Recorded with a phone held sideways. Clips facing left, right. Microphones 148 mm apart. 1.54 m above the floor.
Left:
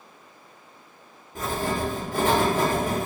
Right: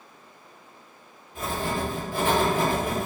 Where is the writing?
40° left (ahead or behind), 1.6 m.